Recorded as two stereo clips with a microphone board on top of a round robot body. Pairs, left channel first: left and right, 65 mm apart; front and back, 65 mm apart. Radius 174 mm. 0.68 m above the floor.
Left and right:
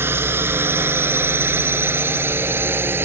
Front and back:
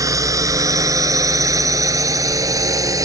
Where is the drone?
145° right; by 3.0 s 150° right.